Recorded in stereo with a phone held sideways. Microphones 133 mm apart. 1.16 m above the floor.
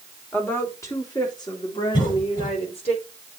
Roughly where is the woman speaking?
Centre.